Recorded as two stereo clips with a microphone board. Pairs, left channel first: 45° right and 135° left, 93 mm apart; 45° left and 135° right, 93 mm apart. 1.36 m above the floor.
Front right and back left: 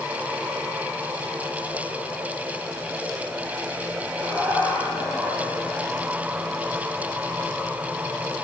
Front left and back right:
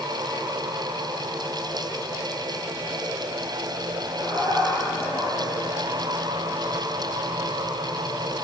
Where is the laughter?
130° right, 5 m; by 6.6 s 140° right, 7 m.